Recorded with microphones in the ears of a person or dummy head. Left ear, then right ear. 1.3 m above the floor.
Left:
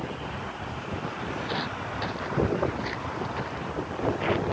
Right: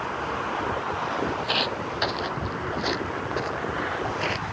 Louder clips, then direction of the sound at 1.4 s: Right 4 dB; 30° right (ahead or behind).